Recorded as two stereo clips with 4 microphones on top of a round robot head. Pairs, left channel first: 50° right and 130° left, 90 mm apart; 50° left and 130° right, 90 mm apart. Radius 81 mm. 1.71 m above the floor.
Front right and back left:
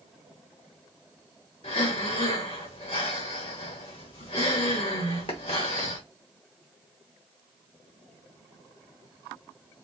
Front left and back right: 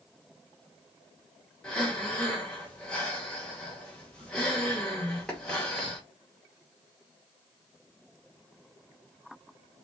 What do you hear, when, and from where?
1.6 s breathing: 30° right, 1.1 m